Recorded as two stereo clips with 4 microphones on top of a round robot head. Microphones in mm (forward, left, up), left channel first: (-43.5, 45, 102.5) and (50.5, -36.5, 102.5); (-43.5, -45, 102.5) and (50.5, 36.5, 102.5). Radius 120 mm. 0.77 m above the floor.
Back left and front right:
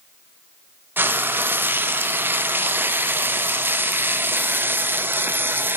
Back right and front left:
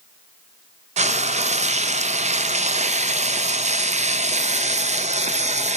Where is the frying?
30° left, 0.6 m.